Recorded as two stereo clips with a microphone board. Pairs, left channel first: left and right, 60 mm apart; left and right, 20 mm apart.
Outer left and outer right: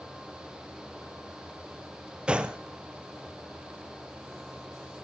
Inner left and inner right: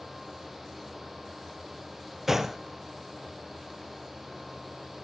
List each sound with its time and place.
2.3 s a gunshot: 15° right (ahead or behind), 0.9 m